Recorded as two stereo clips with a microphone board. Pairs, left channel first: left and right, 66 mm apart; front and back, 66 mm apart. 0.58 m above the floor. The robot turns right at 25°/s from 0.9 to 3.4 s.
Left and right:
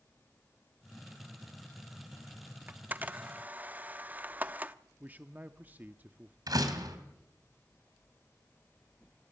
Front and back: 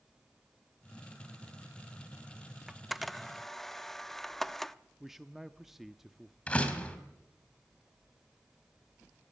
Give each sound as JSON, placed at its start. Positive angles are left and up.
{"t": 2.7, "sound": "a camera shutter", "azimuth_deg": -100, "distance_m": 0.6}
{"t": 5.0, "sound": "a man speaking", "azimuth_deg": -100, "distance_m": 0.7}
{"t": 6.5, "sound": "a door slam", "azimuth_deg": -70, "distance_m": 2.5}